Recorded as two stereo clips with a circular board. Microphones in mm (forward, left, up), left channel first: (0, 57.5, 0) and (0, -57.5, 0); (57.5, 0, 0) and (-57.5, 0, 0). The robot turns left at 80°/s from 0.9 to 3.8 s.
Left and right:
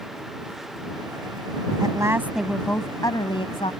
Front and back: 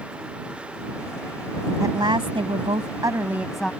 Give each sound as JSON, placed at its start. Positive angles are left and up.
{"t": 1.8, "sound": "a woman speaking", "azimuth_deg": -125}